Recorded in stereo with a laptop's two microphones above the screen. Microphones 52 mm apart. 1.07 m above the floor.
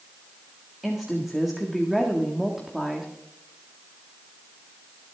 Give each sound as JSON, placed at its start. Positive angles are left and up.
{"t": 0.8, "sound": "a woman speaking", "side_deg": 0, "distance_m": 1.8}